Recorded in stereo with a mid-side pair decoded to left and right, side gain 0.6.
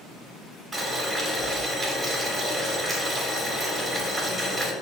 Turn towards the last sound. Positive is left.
turn(degrees=-20)